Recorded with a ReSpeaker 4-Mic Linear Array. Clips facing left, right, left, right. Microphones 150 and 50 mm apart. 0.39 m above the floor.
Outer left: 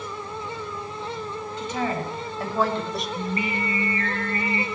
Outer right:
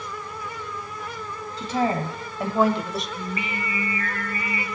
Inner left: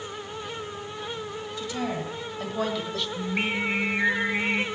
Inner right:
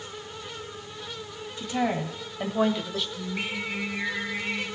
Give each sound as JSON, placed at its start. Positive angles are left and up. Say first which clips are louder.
{"t": 1.6, "sound": "a woman speaking", "louder": "outer right 4 dB, inner right 4 dB", "side_deg": -35, "distance_m": 2.5}
{"t": 3.2, "sound": "singing", "louder": "outer left 3 dB, inner left 5 dB", "side_deg": 45, "distance_m": 1.1}